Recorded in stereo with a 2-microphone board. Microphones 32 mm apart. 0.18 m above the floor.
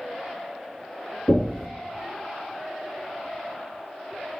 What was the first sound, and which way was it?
Knocking, 45° left (ahead or behind).